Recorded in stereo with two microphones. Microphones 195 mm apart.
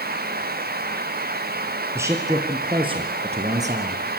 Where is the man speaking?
15° right (ahead or behind), 2.5 m; by 4.0 s 40° right (ahead or behind), 3 m.